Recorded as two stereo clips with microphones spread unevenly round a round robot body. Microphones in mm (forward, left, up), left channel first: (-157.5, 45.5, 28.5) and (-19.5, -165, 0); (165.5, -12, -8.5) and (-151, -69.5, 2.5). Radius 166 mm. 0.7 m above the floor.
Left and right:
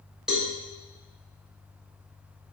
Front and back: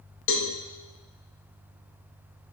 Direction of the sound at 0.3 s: 20° left.